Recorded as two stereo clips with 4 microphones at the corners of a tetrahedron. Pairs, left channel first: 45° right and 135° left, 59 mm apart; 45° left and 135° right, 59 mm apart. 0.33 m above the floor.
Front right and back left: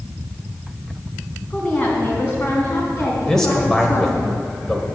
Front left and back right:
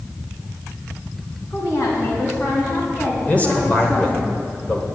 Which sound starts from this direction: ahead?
A woman speaking, at 1.5 s.